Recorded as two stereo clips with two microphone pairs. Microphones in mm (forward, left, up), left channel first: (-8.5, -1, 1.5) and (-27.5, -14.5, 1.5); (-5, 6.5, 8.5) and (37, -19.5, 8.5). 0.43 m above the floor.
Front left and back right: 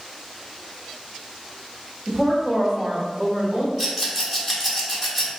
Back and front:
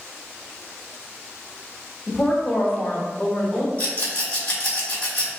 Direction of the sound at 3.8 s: 135° left.